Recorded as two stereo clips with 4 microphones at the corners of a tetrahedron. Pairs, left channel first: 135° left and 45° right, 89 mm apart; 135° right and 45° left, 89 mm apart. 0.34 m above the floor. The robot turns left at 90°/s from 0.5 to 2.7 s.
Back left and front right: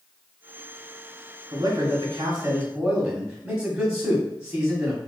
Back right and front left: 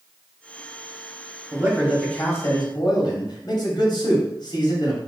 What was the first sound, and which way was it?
A man speaking, 15° right.